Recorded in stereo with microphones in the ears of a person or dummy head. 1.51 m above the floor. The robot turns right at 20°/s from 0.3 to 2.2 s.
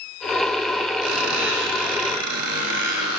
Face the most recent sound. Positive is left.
turn(degrees=-80)